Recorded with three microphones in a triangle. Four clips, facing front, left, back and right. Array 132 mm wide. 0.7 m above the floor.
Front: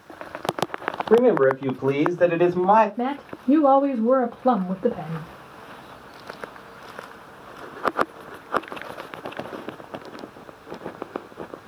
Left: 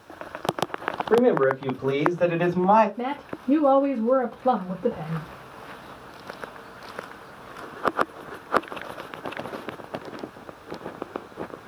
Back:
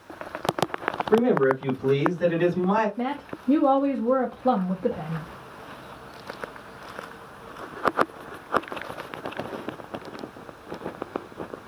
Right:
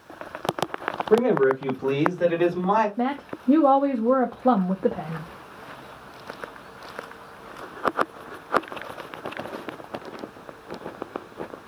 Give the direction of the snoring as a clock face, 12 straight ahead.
I don't hear snoring.